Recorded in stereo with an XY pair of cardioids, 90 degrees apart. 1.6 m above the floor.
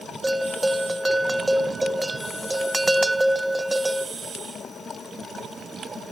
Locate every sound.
0.2 s a bell: 15° right, 0.6 m